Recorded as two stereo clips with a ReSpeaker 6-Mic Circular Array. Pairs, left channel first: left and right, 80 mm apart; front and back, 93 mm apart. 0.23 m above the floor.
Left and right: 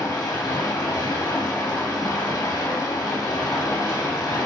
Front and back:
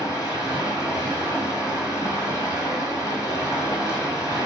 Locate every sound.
0.0 s running water: 50° left, 1.4 m